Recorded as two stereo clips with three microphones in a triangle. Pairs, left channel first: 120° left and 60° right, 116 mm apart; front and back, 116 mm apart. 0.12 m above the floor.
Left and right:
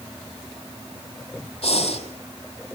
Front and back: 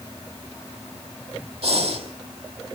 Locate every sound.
1.6 s breathing: 150° left, 4 m